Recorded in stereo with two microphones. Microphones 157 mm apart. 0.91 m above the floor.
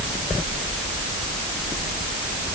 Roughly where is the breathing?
I don't hear breathing.